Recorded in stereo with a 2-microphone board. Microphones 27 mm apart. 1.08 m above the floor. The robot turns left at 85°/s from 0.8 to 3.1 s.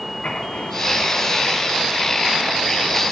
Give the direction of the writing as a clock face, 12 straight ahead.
8 o'clock.